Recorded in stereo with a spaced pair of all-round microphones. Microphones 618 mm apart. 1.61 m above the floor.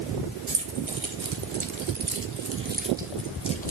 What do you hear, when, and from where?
0.5 s keys jangling: 70° right (ahead or behind), 1.9 m; by 3.7 s 15° left (ahead or behind), 1.4 m